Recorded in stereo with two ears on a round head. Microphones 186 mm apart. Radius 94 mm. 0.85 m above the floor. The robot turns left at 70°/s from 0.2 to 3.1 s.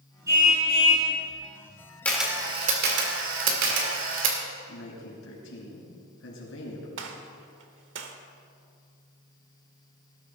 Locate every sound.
0.3 s a car horn: 165° right, 6.5 m; by 1.1 s 140° left, 6.5 m
2.0 s a camera shutter: 10° left (ahead or behind), 2.5 m; by 4.4 s 65° right (ahead or behind), 2.5 m
4.7 s a man speaking: 65° left (ahead or behind), 4.5 m
7.0 s a gunshot: 60° right (ahead or behind), 1.3 m